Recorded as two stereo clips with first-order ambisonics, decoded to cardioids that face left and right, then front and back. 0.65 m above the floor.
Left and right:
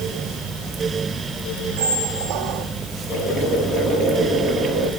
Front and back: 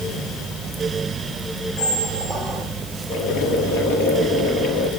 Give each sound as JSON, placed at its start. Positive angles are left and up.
{"t": 1.8, "sound": "a squeak", "azimuth_deg": -85, "distance_m": 2.5}
{"t": 3.1, "sound": "boiling", "azimuth_deg": -40, "distance_m": 7.5}